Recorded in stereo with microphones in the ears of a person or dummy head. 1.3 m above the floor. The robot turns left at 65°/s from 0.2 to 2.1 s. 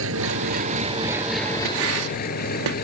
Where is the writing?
70° right (ahead or behind); by 2.8 s 80° right.